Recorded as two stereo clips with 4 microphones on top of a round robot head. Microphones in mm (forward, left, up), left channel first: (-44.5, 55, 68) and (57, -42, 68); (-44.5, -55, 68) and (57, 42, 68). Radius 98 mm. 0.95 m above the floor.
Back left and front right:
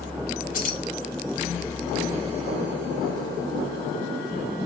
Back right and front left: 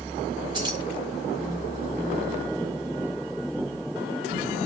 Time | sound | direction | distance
0.5 | keys jangling | 105° left | 4.5 m